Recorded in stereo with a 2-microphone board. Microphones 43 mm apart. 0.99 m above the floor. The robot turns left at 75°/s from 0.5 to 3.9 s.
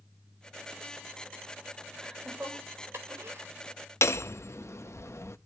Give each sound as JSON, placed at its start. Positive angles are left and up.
{"t": 2.0, "sound": "laughter", "side_deg": -5, "distance_m": 4.0}
{"t": 4.0, "sound": "hammering", "side_deg": 85, "distance_m": 0.7}